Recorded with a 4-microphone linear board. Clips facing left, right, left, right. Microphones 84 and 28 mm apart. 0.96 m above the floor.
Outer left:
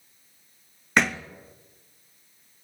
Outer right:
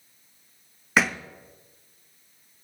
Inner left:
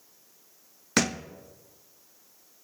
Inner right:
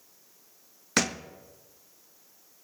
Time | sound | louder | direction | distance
1.0 | a thud | even, inner left 1 dB | 5° right (ahead or behind) | 0.6 m